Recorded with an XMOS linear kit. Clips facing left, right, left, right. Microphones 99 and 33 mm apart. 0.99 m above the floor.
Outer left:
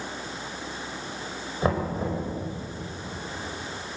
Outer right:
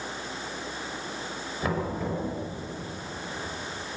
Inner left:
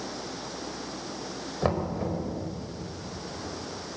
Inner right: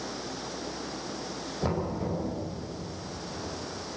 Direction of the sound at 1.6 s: 30° left (ahead or behind).